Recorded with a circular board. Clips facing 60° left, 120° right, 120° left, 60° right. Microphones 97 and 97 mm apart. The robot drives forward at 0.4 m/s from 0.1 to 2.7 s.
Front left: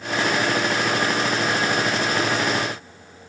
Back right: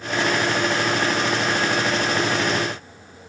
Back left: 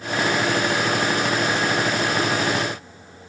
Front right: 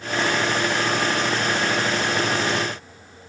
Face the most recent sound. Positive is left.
No sound to turn to.